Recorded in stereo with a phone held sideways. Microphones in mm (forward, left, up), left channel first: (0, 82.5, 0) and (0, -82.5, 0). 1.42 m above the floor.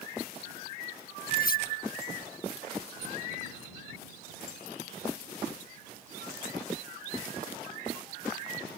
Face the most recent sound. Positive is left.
turn(degrees=65)  # may be behind; listen again after turning